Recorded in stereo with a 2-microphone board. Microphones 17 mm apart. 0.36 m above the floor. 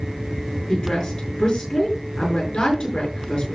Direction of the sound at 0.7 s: 60° left (ahead or behind).